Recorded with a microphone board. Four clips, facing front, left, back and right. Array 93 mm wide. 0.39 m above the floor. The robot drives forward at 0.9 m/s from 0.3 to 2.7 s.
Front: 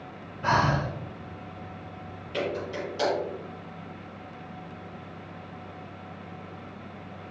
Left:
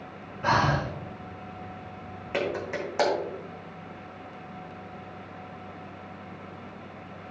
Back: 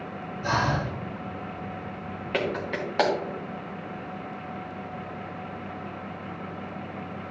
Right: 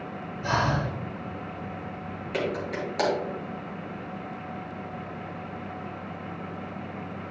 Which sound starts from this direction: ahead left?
Breathing, at 0.4 s.